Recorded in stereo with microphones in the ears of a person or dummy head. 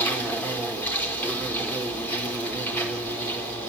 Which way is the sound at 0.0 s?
15° left (ahead or behind).